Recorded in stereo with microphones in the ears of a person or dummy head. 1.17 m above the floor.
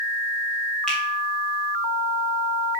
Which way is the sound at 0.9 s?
5° left (ahead or behind).